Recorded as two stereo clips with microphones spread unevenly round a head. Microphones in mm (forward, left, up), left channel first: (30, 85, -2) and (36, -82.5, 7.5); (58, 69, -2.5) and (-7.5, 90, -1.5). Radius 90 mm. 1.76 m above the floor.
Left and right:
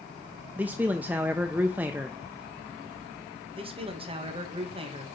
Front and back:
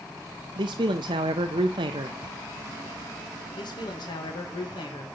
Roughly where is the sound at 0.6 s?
Behind.